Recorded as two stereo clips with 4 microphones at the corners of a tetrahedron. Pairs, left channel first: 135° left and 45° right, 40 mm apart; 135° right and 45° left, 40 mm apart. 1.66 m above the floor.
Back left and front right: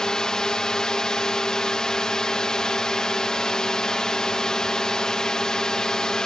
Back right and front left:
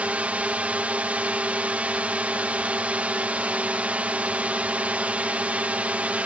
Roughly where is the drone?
Left.